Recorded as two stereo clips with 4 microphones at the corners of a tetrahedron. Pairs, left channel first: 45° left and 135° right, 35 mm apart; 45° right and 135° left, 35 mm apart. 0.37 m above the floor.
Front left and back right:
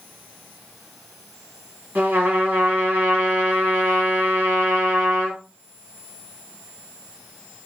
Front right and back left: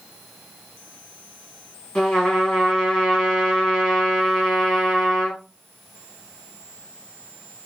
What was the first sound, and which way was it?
A trumpet, 115° right.